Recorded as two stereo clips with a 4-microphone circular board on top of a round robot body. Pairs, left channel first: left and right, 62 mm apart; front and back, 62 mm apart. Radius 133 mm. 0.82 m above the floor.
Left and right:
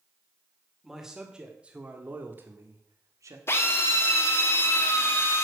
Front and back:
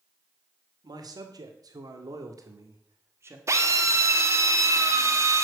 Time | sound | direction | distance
0.8 | a man speaking | straight behind | 2.5 m
3.5 | a drill | 140° left | 1.8 m